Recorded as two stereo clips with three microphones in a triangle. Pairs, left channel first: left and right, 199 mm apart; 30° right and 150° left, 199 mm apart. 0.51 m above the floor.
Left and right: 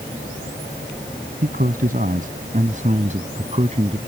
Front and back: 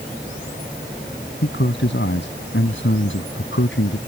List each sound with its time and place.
1.4 s a man speaking: 50° right; by 4.0 s 35° right